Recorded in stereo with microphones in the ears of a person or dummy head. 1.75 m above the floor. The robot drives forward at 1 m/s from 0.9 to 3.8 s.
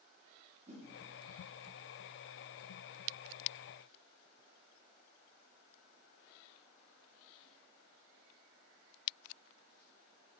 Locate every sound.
0.7 s a whoosh: 35° right (ahead or behind), 2.5 m